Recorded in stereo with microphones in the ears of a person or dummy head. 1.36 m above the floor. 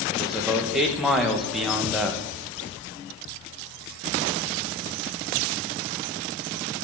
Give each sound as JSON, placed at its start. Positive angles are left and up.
{"t": 0.1, "sound": "a man speaking", "side_deg": 0, "distance_m": 1.3}